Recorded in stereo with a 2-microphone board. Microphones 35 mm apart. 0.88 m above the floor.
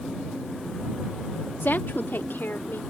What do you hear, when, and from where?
1.6 s a woman speaking: 75° left (ahead or behind); by 2.8 s 85° left